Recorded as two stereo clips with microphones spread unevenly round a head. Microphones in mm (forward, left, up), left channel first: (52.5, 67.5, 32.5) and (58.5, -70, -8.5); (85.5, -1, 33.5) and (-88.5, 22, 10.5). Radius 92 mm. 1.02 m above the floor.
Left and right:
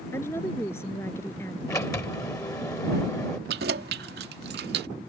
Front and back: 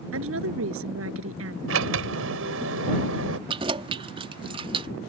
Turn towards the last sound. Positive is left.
turn(degrees=-120)